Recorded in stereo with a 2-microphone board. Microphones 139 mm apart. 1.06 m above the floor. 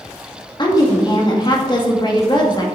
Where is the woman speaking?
35° left (ahead or behind), 2 m.